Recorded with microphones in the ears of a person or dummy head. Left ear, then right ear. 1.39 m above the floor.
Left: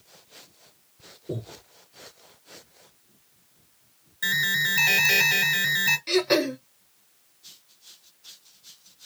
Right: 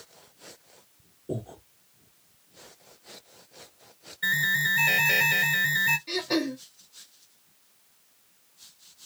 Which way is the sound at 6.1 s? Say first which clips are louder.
Left 6 dB; 40° left (ahead or behind).